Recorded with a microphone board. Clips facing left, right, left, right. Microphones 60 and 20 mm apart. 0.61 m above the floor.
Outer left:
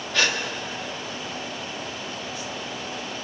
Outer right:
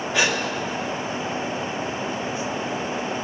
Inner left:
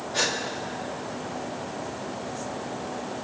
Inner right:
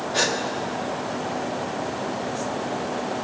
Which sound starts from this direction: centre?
A gasp, at 0.1 s.